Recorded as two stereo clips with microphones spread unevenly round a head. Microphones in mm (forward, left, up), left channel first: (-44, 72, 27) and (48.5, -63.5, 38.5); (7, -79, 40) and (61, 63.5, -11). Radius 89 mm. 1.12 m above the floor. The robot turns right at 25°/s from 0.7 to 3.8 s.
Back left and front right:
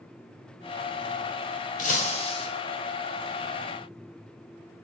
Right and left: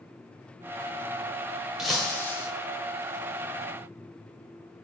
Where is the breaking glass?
170° left, 1.4 m; by 2.5 s 175° right, 1.4 m.